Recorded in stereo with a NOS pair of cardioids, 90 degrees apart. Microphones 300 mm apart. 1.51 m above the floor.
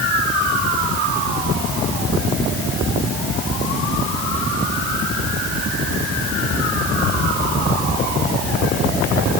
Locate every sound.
Only background noise.